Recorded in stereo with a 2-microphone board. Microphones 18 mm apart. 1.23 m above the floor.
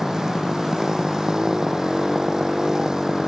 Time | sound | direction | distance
0.0 | a motorcycle | 35° right (ahead or behind) | ?